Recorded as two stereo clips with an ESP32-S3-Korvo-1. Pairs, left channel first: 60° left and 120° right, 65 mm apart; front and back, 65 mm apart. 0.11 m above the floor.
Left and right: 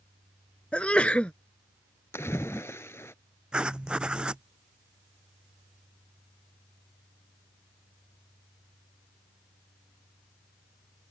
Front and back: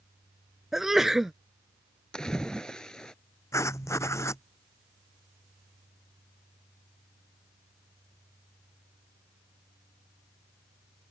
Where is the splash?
75° left.